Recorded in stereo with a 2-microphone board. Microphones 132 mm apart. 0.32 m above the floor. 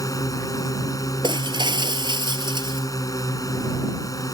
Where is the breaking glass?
35° right (ahead or behind).